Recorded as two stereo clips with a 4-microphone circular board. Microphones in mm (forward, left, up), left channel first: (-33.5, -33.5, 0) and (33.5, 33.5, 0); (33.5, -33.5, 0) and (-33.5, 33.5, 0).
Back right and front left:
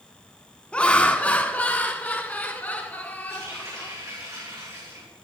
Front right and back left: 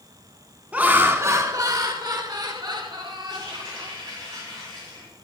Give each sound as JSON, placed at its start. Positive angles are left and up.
{"t": 0.7, "sound": "laughter", "azimuth_deg": 175, "distance_m": 1.2}
{"t": 3.3, "sound": "a running tap", "azimuth_deg": 95, "distance_m": 8.5}